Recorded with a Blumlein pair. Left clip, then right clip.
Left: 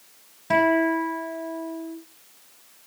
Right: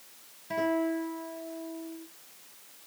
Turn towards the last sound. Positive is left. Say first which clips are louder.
# left 9 dB
turn(degrees=45)